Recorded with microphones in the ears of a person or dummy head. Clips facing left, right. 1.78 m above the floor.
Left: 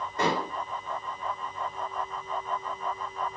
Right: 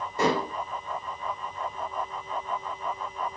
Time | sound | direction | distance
0.2 | dishes clattering | 10° right (ahead or behind) | 2.5 m